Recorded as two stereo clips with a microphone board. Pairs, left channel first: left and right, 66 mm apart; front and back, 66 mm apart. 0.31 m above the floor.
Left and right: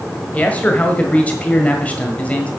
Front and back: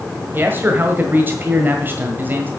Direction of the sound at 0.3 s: 145° left.